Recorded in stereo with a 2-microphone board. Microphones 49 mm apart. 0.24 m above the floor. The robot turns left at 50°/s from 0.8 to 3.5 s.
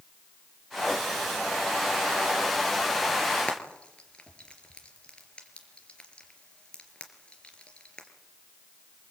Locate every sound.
3.5 s frying: 20° left (ahead or behind), 4 m